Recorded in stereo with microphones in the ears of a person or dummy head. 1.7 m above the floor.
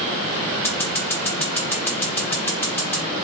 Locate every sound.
0.6 s scissors: 15° left (ahead or behind), 1.5 m